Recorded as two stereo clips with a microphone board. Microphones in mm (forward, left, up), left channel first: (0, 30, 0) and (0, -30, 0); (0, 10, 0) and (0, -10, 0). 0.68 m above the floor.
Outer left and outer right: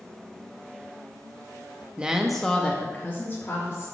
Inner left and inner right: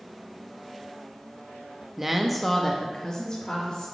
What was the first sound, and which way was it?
A woman speaking, 15° right (ahead or behind).